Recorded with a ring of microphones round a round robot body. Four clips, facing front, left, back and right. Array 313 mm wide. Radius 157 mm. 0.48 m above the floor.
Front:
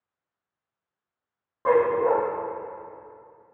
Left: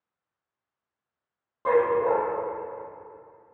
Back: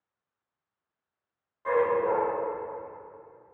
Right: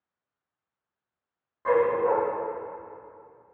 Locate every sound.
1.6 s a dog barking: 20° left, 5 m